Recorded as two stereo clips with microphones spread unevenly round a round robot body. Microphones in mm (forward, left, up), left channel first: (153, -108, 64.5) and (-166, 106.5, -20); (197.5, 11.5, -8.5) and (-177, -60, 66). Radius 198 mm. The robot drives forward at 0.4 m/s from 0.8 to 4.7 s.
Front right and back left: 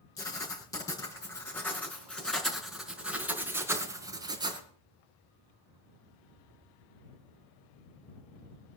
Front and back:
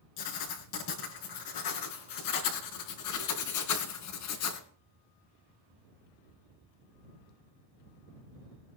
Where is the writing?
45° left, 4 m; by 4.6 s 65° left, 3.5 m.